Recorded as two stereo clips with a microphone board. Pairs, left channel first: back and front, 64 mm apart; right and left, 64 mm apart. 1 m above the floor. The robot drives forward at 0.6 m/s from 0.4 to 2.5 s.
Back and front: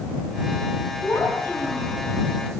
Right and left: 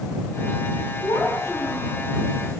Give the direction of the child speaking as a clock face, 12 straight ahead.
4 o'clock.